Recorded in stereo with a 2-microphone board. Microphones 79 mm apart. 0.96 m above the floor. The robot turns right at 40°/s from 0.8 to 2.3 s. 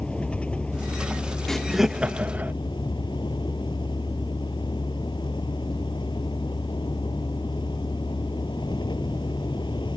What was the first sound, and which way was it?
A vehicle, 15° left.